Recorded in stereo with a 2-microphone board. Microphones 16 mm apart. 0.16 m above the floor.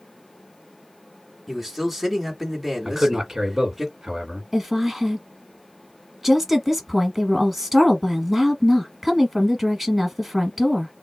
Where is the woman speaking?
20° right (ahead or behind), 1.2 m.